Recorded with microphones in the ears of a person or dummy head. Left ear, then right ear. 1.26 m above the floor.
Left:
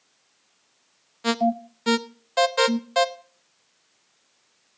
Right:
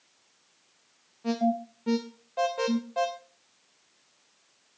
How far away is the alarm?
About 0.6 m.